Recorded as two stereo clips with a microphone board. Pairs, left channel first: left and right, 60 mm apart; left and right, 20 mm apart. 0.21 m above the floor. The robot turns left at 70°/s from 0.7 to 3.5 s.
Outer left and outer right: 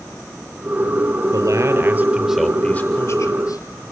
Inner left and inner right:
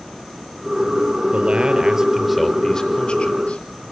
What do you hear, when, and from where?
1.3 s a man speaking: 105° right, 4 m; by 3.6 s 100° left, 4 m